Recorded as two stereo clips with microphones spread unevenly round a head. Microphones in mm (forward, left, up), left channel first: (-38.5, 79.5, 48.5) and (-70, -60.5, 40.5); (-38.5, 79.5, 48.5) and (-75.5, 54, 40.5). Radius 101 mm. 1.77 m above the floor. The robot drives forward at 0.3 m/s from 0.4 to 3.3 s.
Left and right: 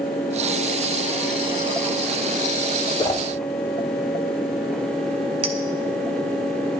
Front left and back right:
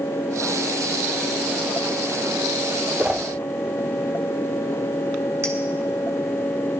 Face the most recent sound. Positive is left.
turn(degrees=-140)